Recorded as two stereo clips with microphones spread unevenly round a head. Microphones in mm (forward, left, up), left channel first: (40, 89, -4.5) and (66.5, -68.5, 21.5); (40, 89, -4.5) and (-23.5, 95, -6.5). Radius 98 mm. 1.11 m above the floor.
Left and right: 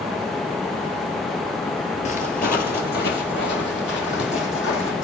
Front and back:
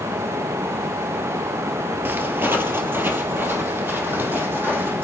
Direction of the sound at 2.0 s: 140° left.